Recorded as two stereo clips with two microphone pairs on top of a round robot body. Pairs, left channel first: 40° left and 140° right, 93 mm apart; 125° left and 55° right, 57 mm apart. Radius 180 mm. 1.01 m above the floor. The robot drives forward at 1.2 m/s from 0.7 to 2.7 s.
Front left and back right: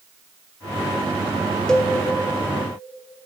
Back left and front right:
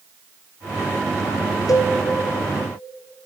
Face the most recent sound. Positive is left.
turn(degrees=155)